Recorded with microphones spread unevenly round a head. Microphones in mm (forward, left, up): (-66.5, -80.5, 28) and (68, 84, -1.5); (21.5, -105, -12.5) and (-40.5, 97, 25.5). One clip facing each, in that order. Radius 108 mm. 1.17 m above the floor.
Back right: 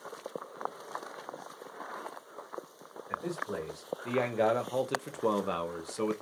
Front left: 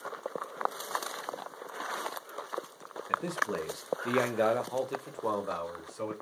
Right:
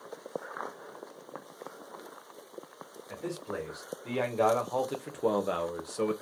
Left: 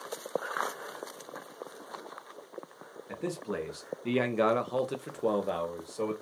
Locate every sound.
3.1 s a man speaking: 65° left, 1.1 m; by 6.1 s 130° right, 1.0 m